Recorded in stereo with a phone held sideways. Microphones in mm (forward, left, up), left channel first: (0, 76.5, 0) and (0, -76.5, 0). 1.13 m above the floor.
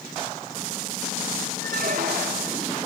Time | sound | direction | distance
1.6 | a squeak | 65° right (ahead or behind) | 2 m